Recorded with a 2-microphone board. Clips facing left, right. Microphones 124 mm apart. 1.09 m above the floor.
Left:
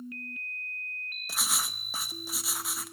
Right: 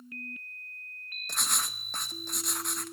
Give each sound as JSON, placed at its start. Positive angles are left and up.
{"t": 1.3, "sound": "writing", "side_deg": 5, "distance_m": 0.7}